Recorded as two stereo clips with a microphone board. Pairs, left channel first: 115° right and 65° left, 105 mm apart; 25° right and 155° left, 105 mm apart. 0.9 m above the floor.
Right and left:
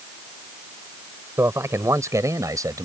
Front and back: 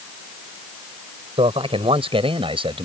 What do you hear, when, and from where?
1.4 s a man speaking: 130° left; by 2.9 s 125° left